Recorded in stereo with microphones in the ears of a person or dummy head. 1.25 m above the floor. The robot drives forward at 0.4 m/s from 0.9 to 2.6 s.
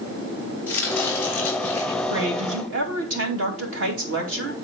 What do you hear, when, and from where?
0.7 s chopping: 10° left (ahead or behind), 3.5 m
2.1 s a woman speaking: 75° right (ahead or behind), 2 m; by 4.5 s 70° right (ahead or behind), 2 m